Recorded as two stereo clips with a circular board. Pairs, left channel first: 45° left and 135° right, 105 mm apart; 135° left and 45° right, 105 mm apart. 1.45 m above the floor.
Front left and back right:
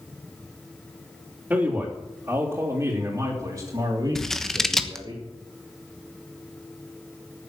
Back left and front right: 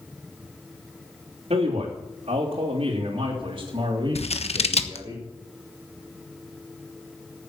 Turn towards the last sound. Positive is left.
turn(degrees=130)